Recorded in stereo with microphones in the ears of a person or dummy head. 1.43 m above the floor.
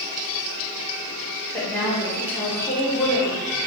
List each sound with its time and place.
1.5 s a woman speaking: 15° left (ahead or behind), 1.7 m